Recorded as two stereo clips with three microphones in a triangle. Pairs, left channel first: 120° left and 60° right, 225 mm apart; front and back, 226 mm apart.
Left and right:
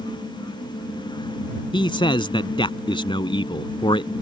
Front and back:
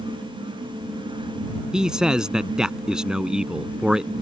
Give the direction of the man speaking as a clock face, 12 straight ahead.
9 o'clock.